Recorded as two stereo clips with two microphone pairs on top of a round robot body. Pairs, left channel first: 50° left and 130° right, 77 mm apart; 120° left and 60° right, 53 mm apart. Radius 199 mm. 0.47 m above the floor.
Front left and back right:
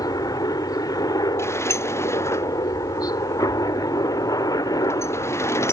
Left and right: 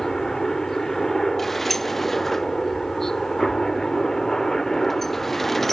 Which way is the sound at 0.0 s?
40° left.